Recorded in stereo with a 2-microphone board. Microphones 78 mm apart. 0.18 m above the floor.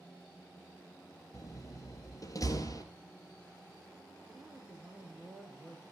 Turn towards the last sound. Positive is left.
turn(degrees=-20)  # may be behind; listen again after turning